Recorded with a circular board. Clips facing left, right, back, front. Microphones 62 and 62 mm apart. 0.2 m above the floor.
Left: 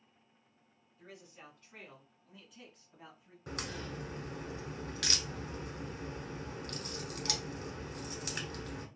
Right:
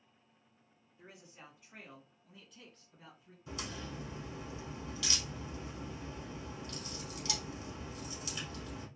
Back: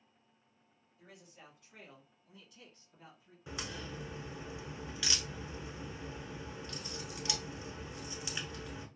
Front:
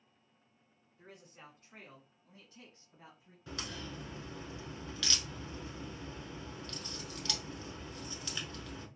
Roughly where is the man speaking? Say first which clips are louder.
Left 2 dB, front 2 dB; ahead right.